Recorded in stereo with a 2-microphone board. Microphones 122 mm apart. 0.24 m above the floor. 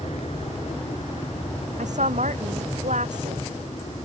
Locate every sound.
0.0 s an aircraft: 60° left (ahead or behind)
1.8 s a woman speaking: 80° right